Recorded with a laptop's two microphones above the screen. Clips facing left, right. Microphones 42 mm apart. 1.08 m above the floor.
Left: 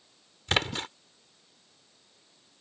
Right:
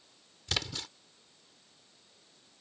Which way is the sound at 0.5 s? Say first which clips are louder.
Left 8 dB; 40° left (ahead or behind).